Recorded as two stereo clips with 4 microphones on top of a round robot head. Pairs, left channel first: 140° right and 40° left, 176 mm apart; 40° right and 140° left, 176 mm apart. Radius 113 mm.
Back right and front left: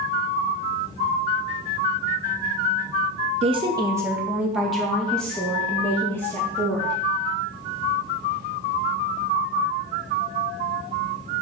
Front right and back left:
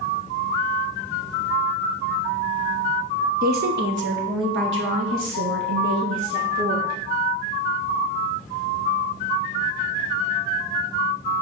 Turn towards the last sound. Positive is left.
turn(degrees=145)